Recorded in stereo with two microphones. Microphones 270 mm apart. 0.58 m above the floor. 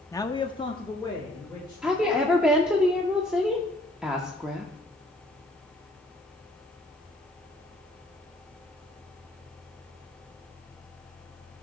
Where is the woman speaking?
5° right (ahead or behind), 0.8 m.